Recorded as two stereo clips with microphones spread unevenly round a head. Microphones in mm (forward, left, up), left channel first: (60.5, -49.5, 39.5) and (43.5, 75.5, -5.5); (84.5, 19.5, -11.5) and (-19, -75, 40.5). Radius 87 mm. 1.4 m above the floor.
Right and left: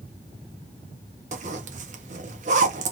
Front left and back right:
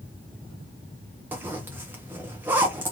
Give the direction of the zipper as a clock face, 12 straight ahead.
7 o'clock.